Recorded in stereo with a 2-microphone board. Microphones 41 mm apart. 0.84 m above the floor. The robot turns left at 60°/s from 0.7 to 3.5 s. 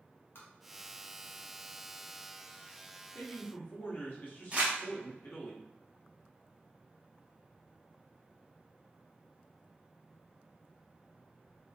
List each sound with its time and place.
0.3 s tapping: 60° left (ahead or behind), 1.0 m
3.1 s a man speaking: 60° left (ahead or behind), 1.2 m; by 5.5 s 55° left (ahead or behind), 1.2 m
4.5 s crumpling: 30° right (ahead or behind), 1.1 m